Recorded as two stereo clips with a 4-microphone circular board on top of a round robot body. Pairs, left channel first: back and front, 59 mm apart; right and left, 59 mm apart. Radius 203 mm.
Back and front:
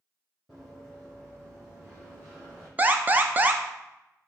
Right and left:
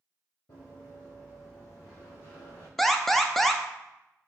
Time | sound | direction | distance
0.5 | running footsteps | 85° right | 1.0 m
2.8 | an alarm | 10° right | 0.6 m